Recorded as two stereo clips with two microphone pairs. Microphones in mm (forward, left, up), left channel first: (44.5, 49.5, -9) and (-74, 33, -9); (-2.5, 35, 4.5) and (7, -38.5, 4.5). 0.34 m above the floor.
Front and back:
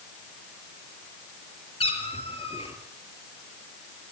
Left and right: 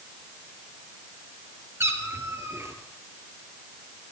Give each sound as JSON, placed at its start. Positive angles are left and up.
{"t": 1.8, "sound": "a cat meowing", "azimuth_deg": -30, "distance_m": 3.0}